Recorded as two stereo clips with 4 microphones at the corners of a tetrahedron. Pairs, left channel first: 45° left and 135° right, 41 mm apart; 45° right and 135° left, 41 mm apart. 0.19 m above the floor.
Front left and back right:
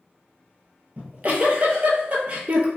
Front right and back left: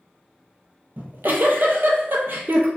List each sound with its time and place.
1.0 s a giggle: 170° left, 0.6 m